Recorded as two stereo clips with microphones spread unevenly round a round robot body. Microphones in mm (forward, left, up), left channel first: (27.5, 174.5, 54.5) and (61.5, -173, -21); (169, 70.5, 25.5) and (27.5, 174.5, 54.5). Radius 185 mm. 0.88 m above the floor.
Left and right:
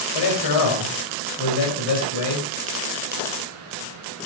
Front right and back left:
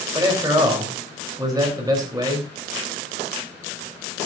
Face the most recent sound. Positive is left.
turn(degrees=75)